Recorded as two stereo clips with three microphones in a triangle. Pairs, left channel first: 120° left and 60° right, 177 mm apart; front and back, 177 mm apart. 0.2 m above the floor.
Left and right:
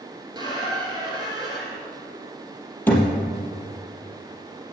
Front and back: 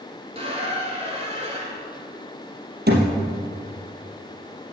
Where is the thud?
160° right, 3 m.